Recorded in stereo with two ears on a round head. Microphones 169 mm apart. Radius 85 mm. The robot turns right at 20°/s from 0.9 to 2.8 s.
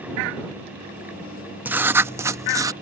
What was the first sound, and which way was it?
Writing, 10° right (ahead or behind).